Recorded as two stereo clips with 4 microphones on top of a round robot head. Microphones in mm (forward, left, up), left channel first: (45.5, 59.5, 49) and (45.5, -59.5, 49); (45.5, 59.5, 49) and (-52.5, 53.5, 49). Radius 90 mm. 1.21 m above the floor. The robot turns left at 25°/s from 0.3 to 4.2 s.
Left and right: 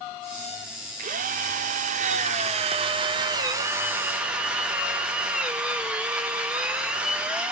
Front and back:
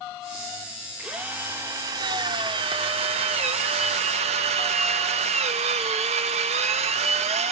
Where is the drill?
90° right, 0.7 m; by 7.5 s 175° right, 0.7 m.